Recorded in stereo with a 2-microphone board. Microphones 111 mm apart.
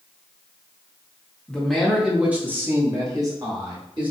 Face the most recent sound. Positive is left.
turn(degrees=-45)  # may be behind; listen again after turning